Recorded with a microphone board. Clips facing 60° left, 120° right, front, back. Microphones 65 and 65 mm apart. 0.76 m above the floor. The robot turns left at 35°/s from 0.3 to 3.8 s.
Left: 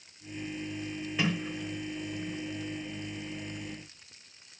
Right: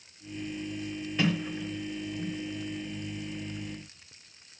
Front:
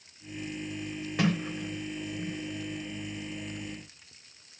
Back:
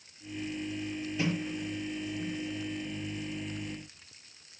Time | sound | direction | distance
1.2 | a sliding door | 30° right | 3 m